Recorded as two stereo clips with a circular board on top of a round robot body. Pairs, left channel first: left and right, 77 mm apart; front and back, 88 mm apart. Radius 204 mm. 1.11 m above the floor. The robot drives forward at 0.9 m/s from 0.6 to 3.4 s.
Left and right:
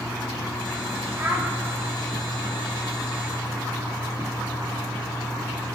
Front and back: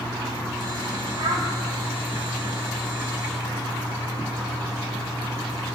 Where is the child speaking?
160° right, 4.5 m.